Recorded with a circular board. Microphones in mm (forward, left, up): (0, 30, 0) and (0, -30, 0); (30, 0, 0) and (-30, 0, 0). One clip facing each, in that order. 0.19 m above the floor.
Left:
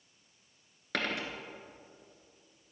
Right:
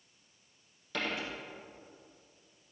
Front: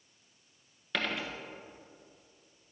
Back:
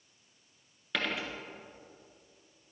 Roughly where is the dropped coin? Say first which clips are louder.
Left 2 dB, even; left.